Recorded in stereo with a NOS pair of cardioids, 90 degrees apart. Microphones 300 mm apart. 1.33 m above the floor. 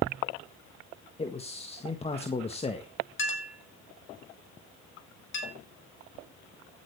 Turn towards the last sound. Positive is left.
turn(degrees=40)